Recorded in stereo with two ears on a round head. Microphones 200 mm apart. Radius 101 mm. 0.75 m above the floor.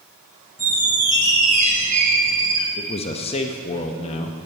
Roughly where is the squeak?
Right.